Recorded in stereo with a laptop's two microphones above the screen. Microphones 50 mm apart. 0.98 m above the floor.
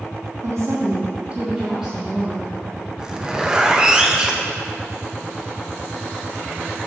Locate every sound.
0.4 s a woman speaking: 75° right (ahead or behind), 1.3 m; by 2.5 s centre (ahead or behind), 2.5 m
3.0 s a zipper: 15° right (ahead or behind), 0.6 m